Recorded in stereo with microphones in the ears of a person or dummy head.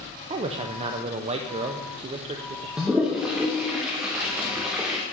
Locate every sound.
0.3 s a man speaking: 35° right (ahead or behind), 0.5 m
2.8 s a toilet flushing: centre (ahead or behind), 0.7 m